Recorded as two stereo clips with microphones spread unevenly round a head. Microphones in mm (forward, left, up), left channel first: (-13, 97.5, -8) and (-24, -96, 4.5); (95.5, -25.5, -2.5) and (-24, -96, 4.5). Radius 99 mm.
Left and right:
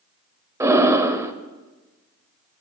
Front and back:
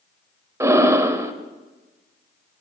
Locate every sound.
0.6 s breathing: 135° right, 0.8 m